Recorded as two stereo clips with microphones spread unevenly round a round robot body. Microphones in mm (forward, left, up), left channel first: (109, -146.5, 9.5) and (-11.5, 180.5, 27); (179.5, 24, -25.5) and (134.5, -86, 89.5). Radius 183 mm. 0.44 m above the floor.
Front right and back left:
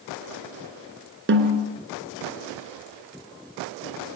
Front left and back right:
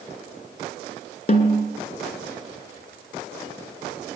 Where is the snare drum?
55° left, 3 m.